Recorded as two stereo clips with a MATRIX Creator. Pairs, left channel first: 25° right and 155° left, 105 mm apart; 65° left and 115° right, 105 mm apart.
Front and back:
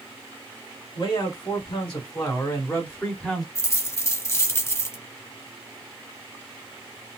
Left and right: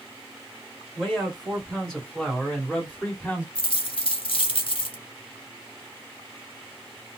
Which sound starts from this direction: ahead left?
A dropped coin, at 3.5 s.